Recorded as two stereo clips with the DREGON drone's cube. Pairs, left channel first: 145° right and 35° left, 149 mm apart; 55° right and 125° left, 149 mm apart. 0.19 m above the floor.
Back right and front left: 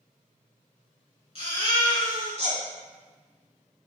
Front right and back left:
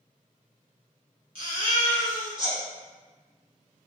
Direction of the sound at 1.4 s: 175° left.